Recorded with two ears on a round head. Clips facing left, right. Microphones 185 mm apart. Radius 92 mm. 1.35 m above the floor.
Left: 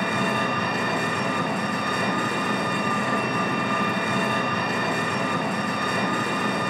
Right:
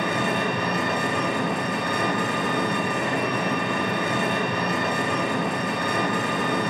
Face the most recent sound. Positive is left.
turn(degrees=-20)  # may be behind; listen again after turning